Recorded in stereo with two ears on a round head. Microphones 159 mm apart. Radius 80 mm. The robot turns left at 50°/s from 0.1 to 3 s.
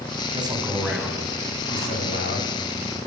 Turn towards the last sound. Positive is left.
turn(degrees=80)